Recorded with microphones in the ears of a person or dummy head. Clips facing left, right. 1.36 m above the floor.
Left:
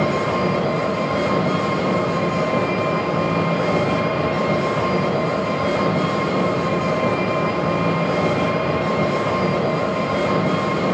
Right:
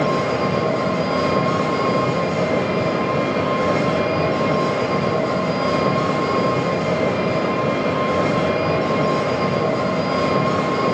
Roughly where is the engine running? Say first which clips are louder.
Even; centre.